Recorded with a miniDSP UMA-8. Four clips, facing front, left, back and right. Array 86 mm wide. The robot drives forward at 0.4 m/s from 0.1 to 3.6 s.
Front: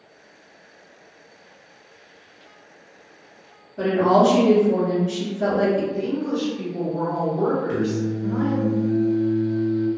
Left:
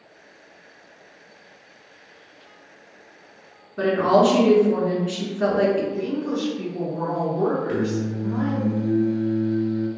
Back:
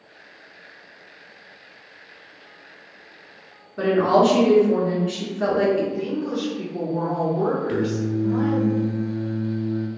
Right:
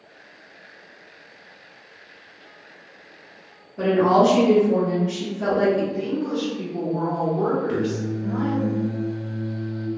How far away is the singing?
About 0.6 m.